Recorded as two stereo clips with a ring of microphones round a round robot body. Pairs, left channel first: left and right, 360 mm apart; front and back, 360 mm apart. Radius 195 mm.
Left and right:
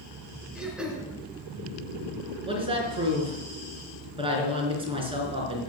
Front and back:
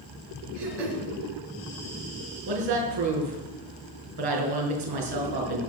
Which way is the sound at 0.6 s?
175° right.